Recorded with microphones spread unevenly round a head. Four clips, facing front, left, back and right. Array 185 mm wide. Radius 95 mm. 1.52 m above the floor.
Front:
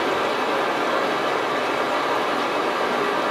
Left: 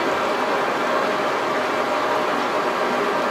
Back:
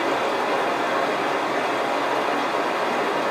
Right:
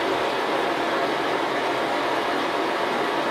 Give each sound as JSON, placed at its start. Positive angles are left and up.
{"t": 0.0, "sound": "running water", "azimuth_deg": 95, "distance_m": 1.1}